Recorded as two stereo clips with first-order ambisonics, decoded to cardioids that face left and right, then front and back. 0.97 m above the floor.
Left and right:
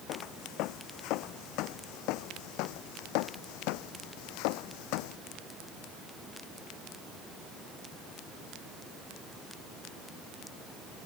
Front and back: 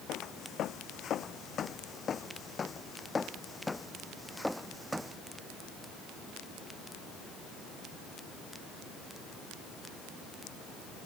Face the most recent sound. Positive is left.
turn(degrees=95)